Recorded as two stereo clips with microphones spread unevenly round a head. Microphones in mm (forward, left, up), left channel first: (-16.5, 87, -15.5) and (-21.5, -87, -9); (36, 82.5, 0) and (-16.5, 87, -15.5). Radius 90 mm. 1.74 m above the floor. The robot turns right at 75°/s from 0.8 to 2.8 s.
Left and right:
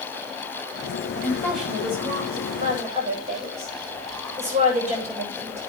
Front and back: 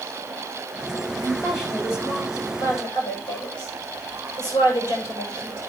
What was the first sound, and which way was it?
A woman speaking, 155° left.